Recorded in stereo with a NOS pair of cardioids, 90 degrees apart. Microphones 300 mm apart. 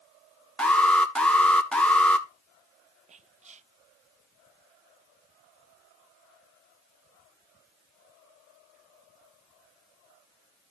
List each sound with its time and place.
0.6 s an alarm: 5° left, 1.3 m
3.1 s whispering: 25° right, 0.5 m